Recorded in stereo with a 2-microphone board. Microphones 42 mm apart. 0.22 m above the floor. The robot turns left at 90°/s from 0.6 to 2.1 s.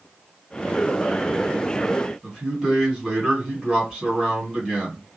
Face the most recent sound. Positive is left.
turn(degrees=-20)  # may be behind; listen again after turning